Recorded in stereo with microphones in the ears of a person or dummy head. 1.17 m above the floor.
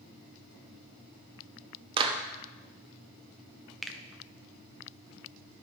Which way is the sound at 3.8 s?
5° left (ahead or behind).